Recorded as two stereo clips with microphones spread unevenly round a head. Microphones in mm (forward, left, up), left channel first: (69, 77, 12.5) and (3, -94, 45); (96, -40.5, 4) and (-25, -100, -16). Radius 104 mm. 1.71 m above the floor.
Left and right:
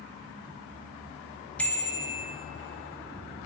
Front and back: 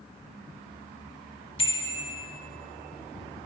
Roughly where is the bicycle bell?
Ahead.